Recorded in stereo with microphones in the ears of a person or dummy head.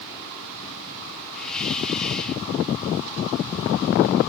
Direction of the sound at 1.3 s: 5° left (ahead or behind).